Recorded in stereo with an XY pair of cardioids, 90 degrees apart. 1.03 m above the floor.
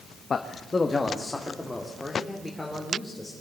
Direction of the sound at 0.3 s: 45° left.